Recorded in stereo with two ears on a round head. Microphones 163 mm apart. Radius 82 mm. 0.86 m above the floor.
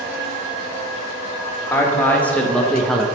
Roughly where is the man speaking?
Centre.